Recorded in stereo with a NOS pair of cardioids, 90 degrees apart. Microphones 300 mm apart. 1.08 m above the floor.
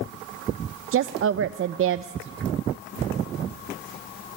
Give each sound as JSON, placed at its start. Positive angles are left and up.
{"t": 0.9, "sound": "a woman speaking", "azimuth_deg": -50, "distance_m": 0.6}